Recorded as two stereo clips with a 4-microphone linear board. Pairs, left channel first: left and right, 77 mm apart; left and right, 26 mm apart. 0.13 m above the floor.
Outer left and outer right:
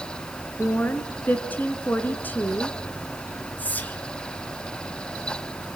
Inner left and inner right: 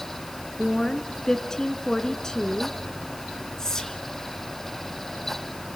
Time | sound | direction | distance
0.6 | a woman speaking | 25° left (ahead or behind) | 1.7 m
3.6 | whispering | 20° left (ahead or behind) | 2 m